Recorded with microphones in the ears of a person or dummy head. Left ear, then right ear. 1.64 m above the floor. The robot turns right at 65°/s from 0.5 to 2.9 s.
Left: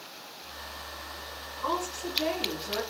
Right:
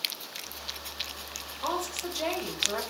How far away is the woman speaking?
About 1.1 m.